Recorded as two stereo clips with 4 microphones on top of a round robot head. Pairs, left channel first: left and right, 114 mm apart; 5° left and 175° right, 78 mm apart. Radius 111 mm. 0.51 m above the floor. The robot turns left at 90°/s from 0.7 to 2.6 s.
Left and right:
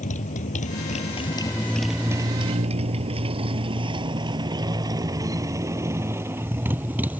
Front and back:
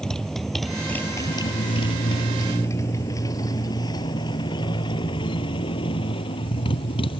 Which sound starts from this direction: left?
A motorcycle, at 0.0 s.